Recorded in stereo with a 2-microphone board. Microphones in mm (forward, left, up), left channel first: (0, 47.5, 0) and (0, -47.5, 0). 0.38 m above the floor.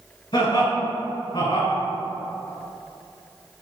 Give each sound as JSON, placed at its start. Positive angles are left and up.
{"t": 0.3, "sound": "laughter", "side_deg": 50, "distance_m": 1.3}